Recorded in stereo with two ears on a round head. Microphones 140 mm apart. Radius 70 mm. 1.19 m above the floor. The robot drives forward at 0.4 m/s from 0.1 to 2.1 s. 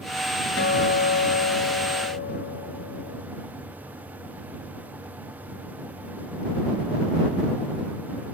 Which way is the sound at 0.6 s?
75° left (ahead or behind).